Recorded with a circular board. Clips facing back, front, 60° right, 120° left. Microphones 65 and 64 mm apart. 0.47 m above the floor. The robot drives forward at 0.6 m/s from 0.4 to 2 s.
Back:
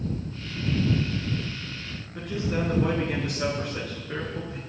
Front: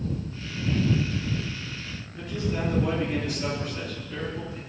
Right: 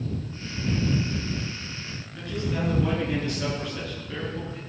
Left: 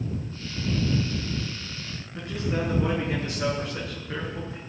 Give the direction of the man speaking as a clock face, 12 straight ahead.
6 o'clock.